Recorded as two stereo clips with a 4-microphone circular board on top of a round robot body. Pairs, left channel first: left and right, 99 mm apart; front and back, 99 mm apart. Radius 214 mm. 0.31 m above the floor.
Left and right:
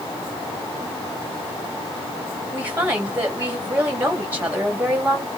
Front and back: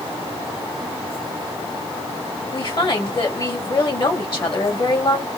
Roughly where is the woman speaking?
Ahead.